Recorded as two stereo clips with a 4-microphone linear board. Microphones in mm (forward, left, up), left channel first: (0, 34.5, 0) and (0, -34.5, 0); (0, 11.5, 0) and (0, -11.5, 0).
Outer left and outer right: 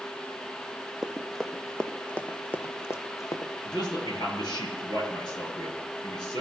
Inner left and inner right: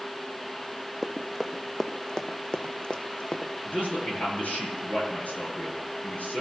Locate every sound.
1.0 s running footsteps: centre (ahead or behind), 1.4 m; by 3.5 s 50° left (ahead or behind), 1.4 m
3.6 s a man speaking: 70° left (ahead or behind), 6.5 m